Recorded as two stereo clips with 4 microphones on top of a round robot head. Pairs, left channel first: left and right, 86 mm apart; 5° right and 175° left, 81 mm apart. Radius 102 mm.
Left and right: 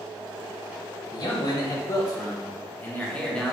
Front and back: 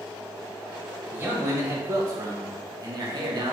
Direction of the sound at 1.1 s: 115° left.